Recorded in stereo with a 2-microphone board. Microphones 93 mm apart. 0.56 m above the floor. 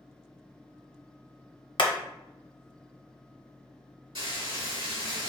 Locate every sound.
1.8 s hammering: 60° left (ahead or behind), 0.7 m
4.2 s frying: 60° right (ahead or behind), 1.9 m